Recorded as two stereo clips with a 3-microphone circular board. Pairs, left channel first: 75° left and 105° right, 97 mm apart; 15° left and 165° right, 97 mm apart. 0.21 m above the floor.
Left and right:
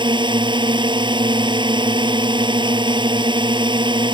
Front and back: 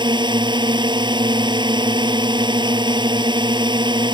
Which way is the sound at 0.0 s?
135° right.